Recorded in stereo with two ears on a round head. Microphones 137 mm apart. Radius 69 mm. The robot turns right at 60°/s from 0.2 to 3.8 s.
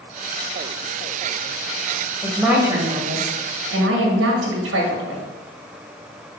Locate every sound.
2.2 s a woman speaking: 170° left, 1.7 m; by 5.2 s 100° right, 1.7 m